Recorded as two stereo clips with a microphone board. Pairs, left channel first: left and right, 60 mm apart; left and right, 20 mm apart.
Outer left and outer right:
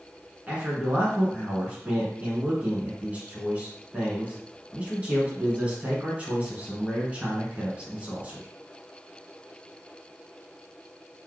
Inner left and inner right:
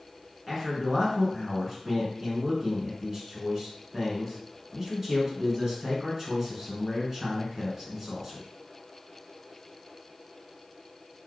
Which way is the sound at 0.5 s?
25° right (ahead or behind).